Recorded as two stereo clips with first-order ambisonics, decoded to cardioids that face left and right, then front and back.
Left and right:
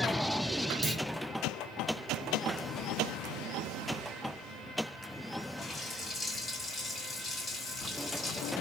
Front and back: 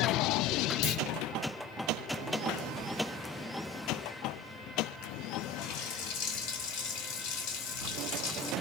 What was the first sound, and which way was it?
A clunk, 20° right.